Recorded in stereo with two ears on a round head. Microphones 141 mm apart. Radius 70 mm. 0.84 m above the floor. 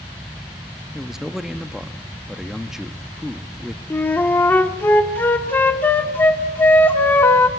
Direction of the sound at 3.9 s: 15° left (ahead or behind).